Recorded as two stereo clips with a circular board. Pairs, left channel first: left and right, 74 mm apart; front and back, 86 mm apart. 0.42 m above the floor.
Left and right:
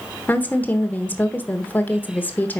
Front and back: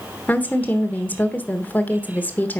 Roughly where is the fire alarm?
No fire alarm in this recording.